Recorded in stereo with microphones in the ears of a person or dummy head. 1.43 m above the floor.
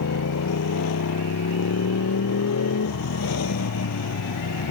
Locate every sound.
0.0 s a motorcycle: 80° left